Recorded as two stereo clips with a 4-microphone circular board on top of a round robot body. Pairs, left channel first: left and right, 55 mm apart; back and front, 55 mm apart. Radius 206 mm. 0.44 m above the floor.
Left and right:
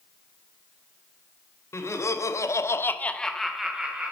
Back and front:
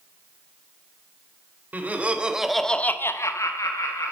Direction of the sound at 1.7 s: 55° left.